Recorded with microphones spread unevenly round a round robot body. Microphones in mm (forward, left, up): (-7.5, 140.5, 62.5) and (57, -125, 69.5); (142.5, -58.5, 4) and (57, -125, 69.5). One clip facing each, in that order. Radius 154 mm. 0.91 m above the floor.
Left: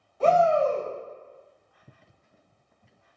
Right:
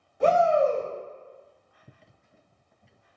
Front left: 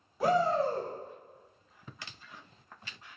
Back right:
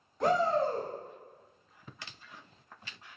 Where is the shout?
5° right, 1.2 m.